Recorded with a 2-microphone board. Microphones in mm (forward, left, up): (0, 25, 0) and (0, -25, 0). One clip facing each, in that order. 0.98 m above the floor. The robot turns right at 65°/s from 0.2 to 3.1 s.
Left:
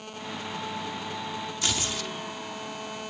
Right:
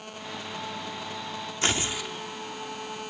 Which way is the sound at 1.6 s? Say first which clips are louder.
Right 5 dB; 40° right.